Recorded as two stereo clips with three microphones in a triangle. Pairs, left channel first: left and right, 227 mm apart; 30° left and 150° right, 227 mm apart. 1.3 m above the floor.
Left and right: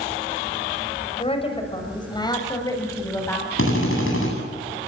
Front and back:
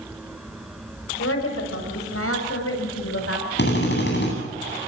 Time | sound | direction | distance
1.2 | a woman speaking | 25° left | 6 m
3.6 | a drill | 70° left | 9 m